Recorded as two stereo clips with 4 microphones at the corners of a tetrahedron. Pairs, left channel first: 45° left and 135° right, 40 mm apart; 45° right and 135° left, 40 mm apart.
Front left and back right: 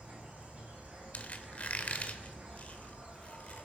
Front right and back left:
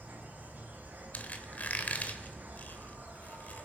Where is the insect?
175° left, 5.5 m.